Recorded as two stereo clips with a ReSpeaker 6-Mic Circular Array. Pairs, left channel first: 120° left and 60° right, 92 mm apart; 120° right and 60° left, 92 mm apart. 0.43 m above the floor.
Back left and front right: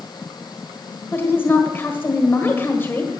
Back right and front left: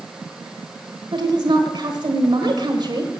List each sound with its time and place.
1.1 s a woman speaking: 60° left, 1.6 m